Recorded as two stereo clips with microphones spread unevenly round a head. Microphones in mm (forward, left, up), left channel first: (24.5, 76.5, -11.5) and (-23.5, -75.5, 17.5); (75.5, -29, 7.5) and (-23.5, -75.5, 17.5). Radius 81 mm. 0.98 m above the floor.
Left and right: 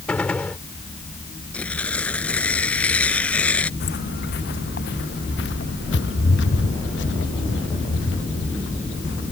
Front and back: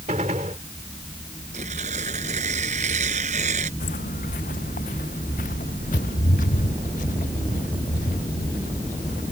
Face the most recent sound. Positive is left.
turn(degrees=60)